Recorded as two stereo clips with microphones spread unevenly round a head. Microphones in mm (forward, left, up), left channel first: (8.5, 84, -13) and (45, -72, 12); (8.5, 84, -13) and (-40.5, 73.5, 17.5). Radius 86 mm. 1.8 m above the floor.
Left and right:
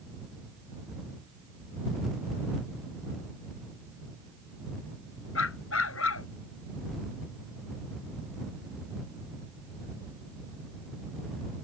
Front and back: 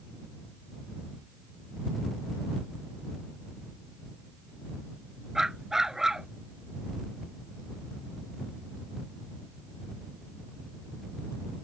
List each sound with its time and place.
5.3 s a dog barking: 120° left